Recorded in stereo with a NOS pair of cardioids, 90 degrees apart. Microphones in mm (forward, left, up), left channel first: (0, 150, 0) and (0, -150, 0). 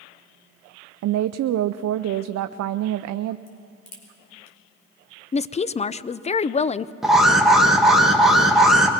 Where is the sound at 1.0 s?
60° right, 0.6 m.